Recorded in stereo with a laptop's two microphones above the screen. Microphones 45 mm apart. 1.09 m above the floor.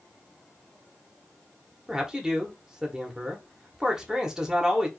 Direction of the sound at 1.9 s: 15° right (ahead or behind).